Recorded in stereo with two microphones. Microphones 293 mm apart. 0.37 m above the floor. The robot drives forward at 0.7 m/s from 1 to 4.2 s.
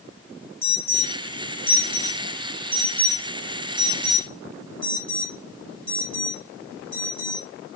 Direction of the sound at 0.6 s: 10° left (ahead or behind).